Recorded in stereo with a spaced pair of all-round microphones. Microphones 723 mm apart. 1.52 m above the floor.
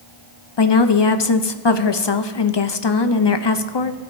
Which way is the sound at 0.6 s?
40° left (ahead or behind).